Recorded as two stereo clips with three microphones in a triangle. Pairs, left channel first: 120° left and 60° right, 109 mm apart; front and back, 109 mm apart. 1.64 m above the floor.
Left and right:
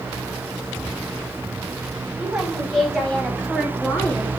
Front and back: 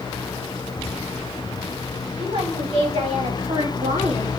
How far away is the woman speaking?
About 4.5 m.